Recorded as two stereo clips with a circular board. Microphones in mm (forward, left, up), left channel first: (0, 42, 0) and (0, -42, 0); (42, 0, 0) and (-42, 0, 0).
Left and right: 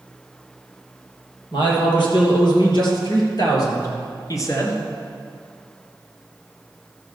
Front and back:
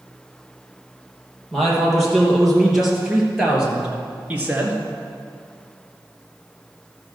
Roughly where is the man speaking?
Left.